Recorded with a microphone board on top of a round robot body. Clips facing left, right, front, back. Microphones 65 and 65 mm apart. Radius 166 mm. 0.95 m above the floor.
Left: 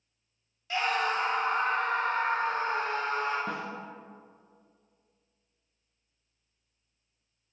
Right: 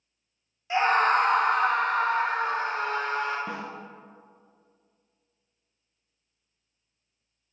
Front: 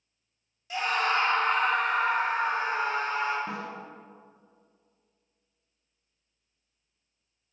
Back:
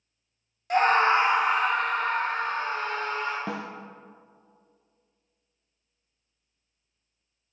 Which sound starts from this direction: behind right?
A scream, at 0.7 s.